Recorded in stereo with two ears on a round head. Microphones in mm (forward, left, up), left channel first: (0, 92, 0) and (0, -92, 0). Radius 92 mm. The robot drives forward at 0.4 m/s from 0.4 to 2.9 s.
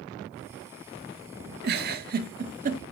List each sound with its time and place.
1.6 s a giggle: 55° right (ahead or behind), 1.3 m; by 2.8 s 40° right (ahead or behind), 1.5 m